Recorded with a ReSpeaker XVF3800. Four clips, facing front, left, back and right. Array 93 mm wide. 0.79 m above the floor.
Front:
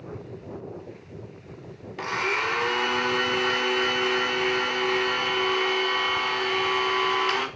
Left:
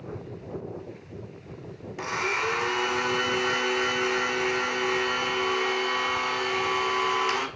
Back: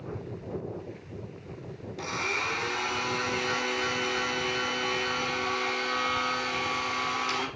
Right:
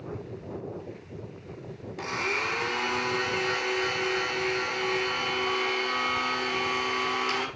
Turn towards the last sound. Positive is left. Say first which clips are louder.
# left 2 dB, front 5 dB
turn(degrees=15)